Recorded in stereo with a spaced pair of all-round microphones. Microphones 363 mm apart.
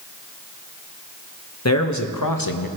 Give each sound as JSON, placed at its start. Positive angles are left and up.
{"t": 1.6, "sound": "a man speaking", "side_deg": 45, "distance_m": 1.3}